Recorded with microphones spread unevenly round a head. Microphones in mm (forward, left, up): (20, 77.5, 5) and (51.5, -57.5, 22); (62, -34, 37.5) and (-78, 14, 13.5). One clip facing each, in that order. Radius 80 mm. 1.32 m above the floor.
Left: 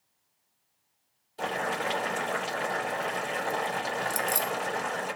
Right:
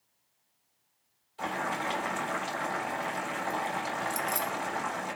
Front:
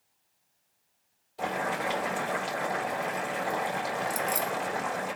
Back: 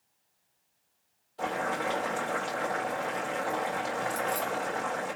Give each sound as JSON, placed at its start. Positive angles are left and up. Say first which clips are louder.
{"t": 1.4, "sound": "boiling", "louder": "left 2 dB, even", "azimuth_deg": 60, "distance_m": 3.0}
{"t": 4.1, "sound": "keys jangling", "louder": "left 2 dB, front 1 dB", "azimuth_deg": 45, "distance_m": 0.6}